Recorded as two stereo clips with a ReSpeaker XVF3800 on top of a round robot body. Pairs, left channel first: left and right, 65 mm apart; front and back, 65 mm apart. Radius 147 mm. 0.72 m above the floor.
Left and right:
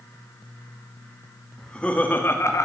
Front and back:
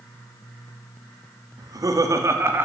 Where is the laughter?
170° left, 1.8 m; by 2.7 s 125° left, 1.6 m.